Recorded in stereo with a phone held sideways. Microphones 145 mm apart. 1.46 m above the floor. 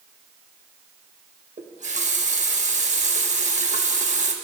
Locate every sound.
1.6 s a running tap: 55° right (ahead or behind), 1.1 m